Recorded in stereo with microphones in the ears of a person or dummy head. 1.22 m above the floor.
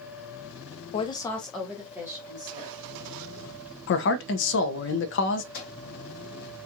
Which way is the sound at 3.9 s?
60° left (ahead or behind).